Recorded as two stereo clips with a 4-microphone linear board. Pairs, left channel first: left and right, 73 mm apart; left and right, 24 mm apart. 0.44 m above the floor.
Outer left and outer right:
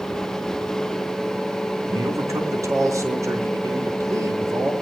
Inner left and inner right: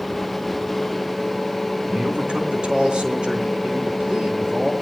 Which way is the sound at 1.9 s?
45° right (ahead or behind).